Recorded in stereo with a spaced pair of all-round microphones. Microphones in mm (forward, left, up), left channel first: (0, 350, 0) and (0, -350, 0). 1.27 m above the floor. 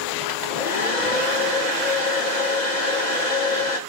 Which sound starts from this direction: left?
A hair dryer, at 0.3 s.